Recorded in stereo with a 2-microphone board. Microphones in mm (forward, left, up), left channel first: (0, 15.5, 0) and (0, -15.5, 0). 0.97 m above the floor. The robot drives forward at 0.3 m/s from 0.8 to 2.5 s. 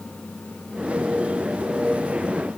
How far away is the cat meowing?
No cat meowing in this recording.